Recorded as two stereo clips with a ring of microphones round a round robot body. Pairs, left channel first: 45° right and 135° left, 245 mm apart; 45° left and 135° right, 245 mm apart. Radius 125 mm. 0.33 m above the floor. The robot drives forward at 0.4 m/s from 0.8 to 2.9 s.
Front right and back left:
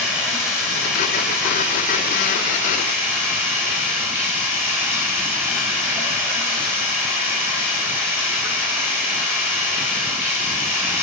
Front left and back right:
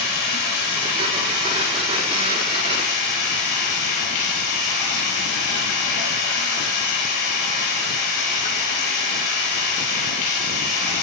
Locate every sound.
0.0 s running water: 45° left, 6 m; by 11.0 s 55° left, 5.5 m